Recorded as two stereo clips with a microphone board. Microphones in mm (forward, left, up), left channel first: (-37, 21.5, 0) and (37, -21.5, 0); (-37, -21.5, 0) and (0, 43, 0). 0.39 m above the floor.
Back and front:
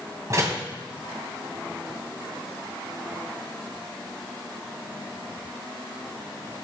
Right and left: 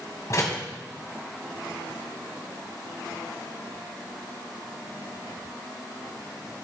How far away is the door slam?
About 1.7 m.